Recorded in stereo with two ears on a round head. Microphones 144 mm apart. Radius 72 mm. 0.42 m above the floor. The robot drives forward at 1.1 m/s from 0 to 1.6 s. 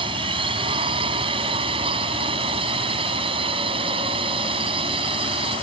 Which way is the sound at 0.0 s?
30° right (ahead or behind).